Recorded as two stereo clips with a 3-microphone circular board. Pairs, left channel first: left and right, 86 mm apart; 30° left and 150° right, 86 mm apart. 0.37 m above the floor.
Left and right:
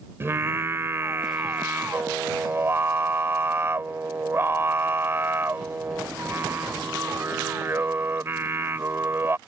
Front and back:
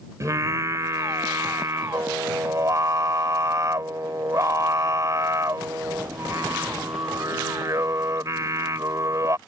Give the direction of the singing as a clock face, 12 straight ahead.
4 o'clock.